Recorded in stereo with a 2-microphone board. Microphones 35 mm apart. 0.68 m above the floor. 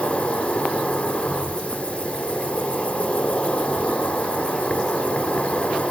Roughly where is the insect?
Left.